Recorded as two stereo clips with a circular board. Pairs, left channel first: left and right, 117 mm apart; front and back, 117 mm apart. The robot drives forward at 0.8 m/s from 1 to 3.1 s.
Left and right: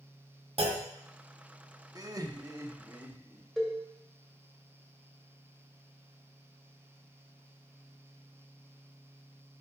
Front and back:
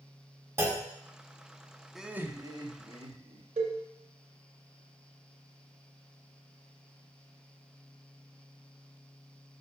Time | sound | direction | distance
0.6 | a clunk | 115° right | 1.3 m
1.9 | laughter | 90° right | 0.7 m
3.6 | a cowbell | straight behind | 2.5 m